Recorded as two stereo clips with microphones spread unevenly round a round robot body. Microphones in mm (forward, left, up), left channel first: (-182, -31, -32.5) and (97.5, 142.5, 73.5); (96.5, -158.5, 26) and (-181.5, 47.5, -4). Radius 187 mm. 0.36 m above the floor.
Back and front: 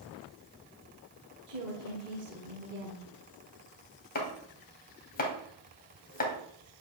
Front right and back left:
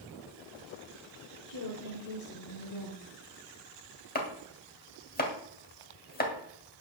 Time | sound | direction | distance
1.5 | a woman speaking | 35° right | 1.6 m
4.2 | chopping | 100° right | 2.0 m